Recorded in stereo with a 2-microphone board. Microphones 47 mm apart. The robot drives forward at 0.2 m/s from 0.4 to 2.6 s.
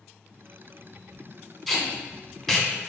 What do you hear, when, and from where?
1.7 s tape being pulled: 5° left (ahead or behind), 0.7 m; by 2.7 s 10° left (ahead or behind), 0.5 m